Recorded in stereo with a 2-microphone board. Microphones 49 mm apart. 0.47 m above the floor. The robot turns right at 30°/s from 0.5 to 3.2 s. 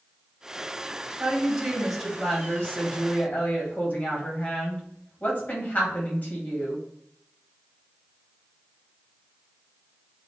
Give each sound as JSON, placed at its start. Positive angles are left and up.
{"t": 1.2, "sound": "a woman speaking", "azimuth_deg": -20, "distance_m": 2.5}